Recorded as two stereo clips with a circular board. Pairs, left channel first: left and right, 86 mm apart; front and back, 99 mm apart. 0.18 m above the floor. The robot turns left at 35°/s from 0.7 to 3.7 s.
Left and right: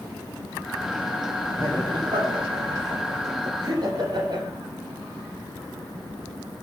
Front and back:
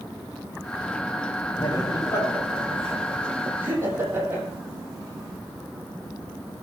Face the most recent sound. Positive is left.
turn(degrees=-115)